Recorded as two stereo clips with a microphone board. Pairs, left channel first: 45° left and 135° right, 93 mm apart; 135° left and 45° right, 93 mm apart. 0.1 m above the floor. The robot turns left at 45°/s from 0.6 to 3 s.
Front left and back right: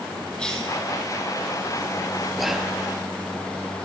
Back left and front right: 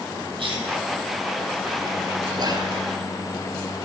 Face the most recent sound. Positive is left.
turn(degrees=-70)